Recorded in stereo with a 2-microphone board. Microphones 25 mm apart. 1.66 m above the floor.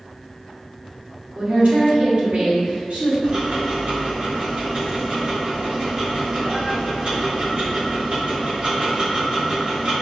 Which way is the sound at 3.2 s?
55° right (ahead or behind).